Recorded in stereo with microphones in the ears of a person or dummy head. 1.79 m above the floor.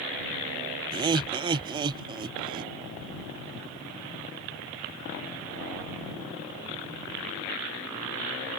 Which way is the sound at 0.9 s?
20° right (ahead or behind).